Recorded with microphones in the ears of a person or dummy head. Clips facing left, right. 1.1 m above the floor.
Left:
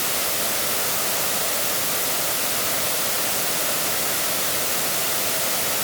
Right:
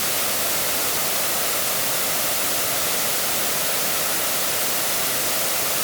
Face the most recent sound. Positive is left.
No sound to turn to.